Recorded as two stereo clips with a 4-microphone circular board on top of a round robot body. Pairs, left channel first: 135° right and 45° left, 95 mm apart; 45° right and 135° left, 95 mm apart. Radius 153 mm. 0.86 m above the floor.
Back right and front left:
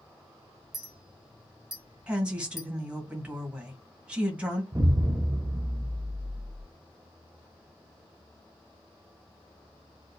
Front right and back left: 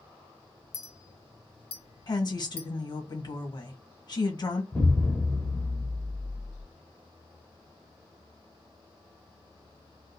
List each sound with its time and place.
0.7 s a clink: 40° right, 0.7 m
2.1 s a woman speaking: 25° right, 1.2 m
4.7 s an explosion: 20° left, 0.8 m